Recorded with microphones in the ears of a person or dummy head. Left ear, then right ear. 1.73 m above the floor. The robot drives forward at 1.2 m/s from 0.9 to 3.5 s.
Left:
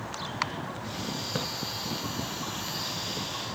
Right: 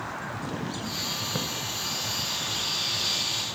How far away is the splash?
About 1.1 m.